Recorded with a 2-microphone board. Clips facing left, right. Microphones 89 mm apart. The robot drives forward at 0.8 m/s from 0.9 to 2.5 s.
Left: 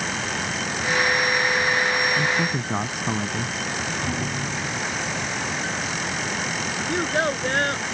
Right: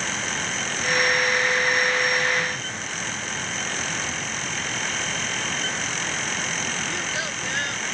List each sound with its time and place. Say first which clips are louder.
2.2 s a man speaking: left 2 dB; 80° left
4.0 s a thud: left 4 dB; 50° left (ahead or behind)
6.9 s a child speaking: left 7 dB; 45° left (ahead or behind)